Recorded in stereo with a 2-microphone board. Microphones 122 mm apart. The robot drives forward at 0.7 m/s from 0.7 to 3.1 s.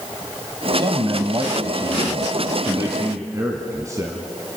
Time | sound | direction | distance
0.7 | a man speaking | 45° right (ahead or behind) | 1.3 m